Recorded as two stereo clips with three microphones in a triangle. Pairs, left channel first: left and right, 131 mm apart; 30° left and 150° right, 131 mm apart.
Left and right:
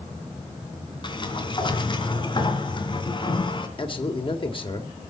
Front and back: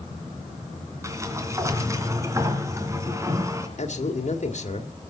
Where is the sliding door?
145° left, 2.5 m.